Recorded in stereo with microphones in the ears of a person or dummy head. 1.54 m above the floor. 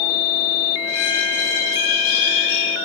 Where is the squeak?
10° left (ahead or behind), 1.0 m.